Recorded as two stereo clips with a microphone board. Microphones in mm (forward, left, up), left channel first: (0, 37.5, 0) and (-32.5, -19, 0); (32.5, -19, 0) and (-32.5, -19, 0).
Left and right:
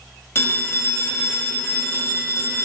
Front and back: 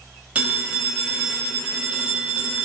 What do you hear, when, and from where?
0.3 s a phone ringing: 110° left, 0.6 m